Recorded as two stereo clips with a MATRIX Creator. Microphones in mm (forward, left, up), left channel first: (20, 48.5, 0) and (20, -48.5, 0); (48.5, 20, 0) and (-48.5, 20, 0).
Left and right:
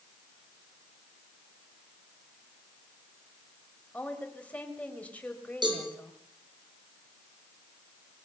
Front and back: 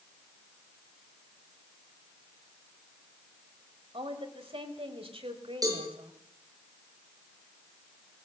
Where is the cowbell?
130° right, 7 m.